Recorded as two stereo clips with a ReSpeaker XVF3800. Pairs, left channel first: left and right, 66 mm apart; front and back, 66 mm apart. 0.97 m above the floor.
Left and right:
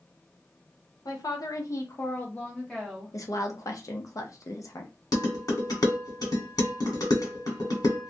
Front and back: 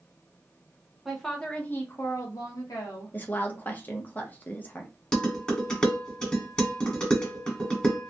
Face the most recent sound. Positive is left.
turn(degrees=75)